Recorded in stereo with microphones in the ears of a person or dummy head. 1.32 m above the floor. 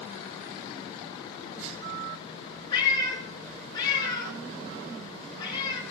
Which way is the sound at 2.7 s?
25° left (ahead or behind).